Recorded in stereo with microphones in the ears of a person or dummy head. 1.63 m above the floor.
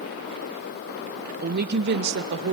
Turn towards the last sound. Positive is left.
turn(degrees=-70)  # may be behind; listen again after turning